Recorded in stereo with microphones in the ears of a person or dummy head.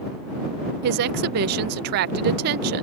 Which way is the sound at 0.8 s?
50° right (ahead or behind).